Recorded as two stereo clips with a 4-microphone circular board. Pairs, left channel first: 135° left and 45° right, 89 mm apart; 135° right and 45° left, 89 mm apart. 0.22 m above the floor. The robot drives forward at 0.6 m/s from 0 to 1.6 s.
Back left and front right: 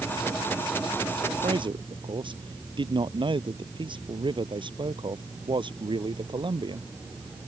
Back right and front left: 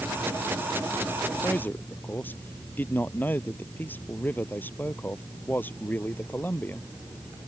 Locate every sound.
1.4 s a man speaking: 65° right